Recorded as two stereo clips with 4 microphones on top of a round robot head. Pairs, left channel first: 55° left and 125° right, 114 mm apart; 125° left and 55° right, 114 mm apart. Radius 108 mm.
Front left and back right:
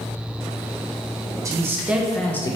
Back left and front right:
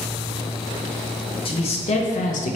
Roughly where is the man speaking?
Behind.